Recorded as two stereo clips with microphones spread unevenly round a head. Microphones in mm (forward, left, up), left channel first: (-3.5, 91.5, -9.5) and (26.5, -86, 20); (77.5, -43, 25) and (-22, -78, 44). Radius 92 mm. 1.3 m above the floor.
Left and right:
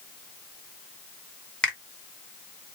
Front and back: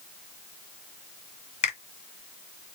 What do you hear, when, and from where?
1.6 s a finger snap: 10° left, 1.8 m